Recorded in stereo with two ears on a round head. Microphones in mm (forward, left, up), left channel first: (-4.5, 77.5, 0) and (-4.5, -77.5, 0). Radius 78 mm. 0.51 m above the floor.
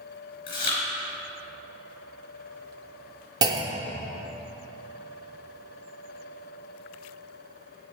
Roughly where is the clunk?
Right.